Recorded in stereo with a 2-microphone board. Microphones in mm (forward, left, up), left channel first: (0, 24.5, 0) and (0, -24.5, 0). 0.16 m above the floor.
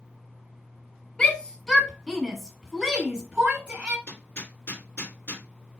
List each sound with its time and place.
1.2 s a shout: 20° left (ahead or behind), 1.3 m; by 4.0 s 25° right (ahead or behind), 1.5 m
4.1 s hammering: 50° left (ahead or behind), 2 m